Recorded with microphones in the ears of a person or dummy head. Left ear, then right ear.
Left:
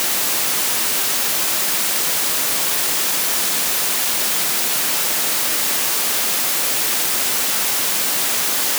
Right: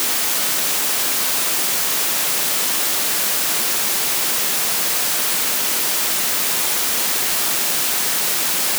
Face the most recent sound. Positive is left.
No sound to turn to.